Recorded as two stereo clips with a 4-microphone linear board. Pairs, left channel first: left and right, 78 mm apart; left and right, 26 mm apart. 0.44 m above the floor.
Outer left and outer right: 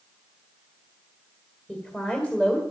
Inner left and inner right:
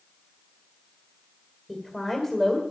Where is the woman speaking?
15° left (ahead or behind), 2 m.